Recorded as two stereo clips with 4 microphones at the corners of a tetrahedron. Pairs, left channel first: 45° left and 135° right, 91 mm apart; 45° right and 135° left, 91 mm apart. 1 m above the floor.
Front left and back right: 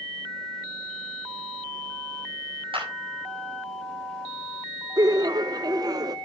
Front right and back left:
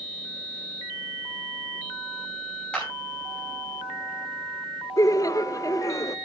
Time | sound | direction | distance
2.7 | a clap | 120° right | 6 m
5.0 | laughter | 95° right | 0.5 m